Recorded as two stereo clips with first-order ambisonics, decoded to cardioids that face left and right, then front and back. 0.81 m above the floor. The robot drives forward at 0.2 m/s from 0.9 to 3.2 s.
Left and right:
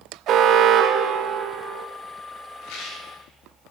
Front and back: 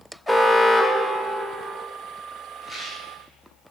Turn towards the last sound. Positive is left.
turn(degrees=90)